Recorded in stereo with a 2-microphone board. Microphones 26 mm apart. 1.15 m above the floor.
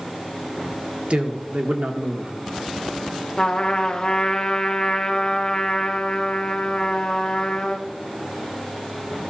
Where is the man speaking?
55° right (ahead or behind), 1.4 m.